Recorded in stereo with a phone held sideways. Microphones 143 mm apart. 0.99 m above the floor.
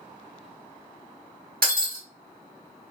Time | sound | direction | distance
1.6 | breaking glass | 85° right | 1.0 m